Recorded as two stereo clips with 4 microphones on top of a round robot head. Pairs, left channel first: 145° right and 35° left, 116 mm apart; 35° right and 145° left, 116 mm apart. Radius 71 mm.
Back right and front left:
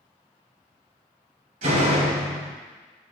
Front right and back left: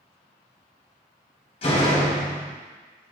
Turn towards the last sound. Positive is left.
turn(degrees=10)